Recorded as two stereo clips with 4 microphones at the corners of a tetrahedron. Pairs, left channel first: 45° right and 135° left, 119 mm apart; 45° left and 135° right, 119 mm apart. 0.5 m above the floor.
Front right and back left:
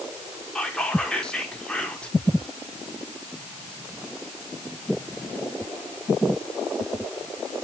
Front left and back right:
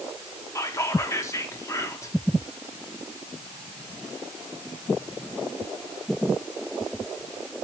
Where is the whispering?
25° left, 0.8 m.